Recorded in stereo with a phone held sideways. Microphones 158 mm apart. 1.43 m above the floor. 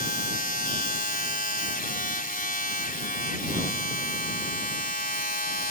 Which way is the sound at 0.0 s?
65° left (ahead or behind).